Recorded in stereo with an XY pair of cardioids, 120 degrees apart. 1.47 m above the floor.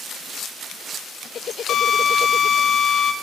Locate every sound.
1.7 s a drill: 55° left, 0.7 m